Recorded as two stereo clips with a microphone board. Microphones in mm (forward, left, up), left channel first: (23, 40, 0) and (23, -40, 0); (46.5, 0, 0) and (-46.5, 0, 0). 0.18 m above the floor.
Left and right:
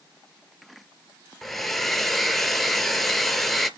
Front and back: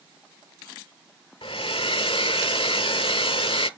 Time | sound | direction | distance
1.4 | a hair dryer | 5° left | 0.6 m